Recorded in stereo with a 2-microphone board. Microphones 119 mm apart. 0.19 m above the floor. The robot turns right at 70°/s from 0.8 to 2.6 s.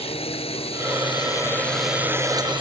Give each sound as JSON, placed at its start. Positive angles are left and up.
{"t": 0.0, "sound": "a drone", "azimuth_deg": 110}